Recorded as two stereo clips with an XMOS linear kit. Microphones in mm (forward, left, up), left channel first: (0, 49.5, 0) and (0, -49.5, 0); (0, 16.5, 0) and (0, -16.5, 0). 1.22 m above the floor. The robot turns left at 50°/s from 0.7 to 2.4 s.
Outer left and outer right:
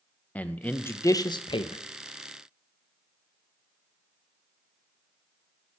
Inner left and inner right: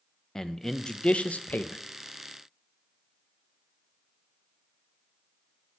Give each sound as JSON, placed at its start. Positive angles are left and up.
{"t": 0.3, "sound": "a man speaking", "azimuth_deg": 165, "distance_m": 0.5}